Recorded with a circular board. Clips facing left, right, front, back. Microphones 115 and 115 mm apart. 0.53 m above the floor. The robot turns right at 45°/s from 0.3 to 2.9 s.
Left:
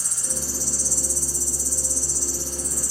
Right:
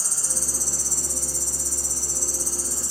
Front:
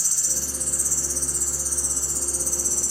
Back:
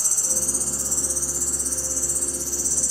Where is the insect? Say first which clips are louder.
Left 2 dB, back 4 dB; 140° right, 0.8 m; by 2.9 s 25° right, 0.8 m.